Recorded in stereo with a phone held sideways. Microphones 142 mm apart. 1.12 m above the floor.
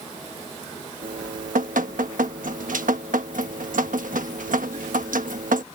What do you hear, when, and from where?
1.0 s dripping: 80° right